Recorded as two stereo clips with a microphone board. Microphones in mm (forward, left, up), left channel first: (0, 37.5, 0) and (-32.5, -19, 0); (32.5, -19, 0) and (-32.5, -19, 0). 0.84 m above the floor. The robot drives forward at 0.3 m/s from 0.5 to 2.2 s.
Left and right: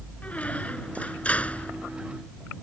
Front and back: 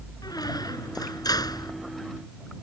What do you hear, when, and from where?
0.2 s a squeak: 10° right